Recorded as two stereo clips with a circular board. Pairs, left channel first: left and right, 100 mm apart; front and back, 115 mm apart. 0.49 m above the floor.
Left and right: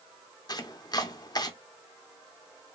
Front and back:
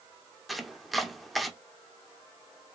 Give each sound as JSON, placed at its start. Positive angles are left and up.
{"t": 0.5, "sound": "chopping", "azimuth_deg": 90, "distance_m": 0.5}